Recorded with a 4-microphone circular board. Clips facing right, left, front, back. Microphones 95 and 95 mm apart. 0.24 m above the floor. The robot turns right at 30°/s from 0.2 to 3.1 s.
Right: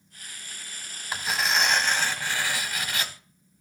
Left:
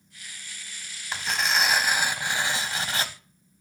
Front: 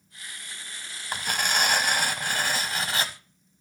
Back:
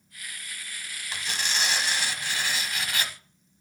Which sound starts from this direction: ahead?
Tearing paper, at 1.1 s.